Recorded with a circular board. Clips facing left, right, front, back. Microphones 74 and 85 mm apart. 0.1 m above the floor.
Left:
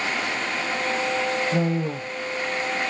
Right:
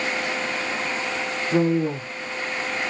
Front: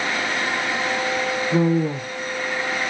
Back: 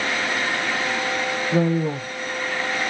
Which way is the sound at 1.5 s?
65° right.